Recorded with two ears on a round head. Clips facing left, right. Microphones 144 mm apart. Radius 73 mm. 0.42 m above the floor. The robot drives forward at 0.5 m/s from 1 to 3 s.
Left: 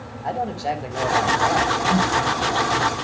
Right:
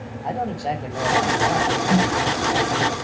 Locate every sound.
0.2 s a man speaking: 5° left (ahead or behind), 3 m
1.9 s a snare drum: 30° right (ahead or behind), 2.5 m